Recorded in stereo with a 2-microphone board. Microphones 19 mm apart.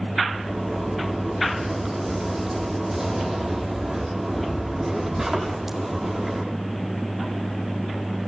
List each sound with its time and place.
0.3 s a zipper: 10° right (ahead or behind), 6 m